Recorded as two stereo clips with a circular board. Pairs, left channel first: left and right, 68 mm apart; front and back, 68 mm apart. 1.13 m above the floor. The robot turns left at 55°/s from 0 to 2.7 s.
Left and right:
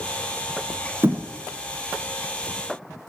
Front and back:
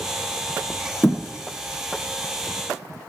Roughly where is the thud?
Ahead right.